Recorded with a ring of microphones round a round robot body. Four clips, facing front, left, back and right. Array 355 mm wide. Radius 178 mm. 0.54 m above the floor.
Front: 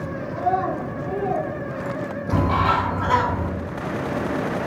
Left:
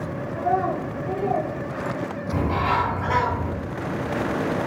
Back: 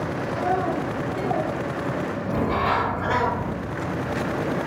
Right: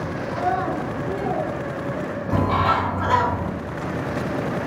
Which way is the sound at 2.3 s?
45° right.